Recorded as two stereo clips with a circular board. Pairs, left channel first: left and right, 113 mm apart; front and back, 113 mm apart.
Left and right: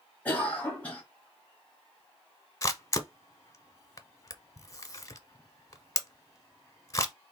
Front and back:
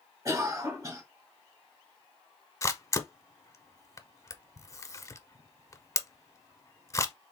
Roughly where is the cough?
Behind left.